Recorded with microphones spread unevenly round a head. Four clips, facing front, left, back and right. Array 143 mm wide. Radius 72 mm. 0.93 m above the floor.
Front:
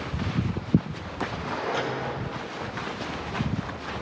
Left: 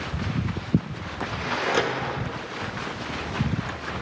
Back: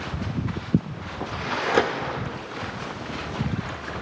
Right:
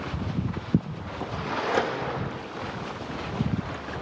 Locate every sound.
1.7 s a microwave: straight behind, 0.9 m